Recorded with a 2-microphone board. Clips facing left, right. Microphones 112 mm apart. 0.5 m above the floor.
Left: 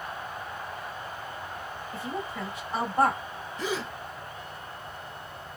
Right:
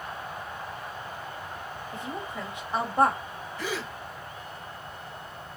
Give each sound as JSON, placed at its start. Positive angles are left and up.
{"t": 1.9, "sound": "a woman speaking", "side_deg": -20, "distance_m": 3.0}
{"t": 3.6, "sound": "a gasp", "side_deg": 20, "distance_m": 1.3}